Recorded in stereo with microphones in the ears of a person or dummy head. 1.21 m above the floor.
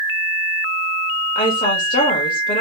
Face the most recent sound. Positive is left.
turn(degrees=50)  # may be behind; listen again after turning